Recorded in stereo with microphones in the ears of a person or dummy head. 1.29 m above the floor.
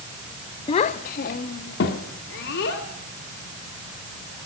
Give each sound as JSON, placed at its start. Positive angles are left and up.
{"t": 0.7, "sound": "a child speaking", "side_deg": 25, "distance_m": 0.7}